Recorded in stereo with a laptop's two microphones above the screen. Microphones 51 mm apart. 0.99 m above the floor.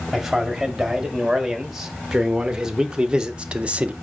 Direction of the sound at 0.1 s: 5° right (ahead or behind).